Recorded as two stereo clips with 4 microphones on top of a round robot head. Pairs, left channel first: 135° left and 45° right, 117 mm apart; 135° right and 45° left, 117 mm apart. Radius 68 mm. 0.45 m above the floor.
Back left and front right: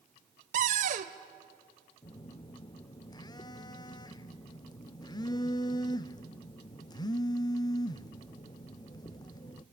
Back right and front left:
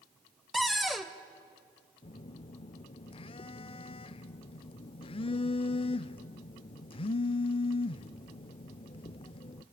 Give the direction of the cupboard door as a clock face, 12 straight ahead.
1 o'clock.